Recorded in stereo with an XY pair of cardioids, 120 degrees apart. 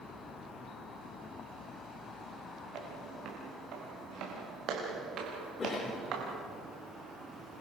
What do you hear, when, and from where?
2.7 s footsteps: 70° right, 8.5 m; by 6.3 s 55° right, 7.5 m
5.6 s a cough: 30° left, 4 m